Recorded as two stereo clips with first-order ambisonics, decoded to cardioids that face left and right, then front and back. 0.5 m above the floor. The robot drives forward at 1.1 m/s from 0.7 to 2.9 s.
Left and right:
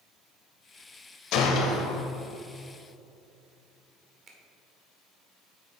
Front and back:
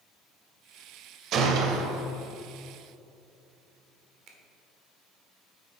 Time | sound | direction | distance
1.3 | a gunshot | 130° left | 0.9 m
4.3 | a finger snap | 145° right | 1.3 m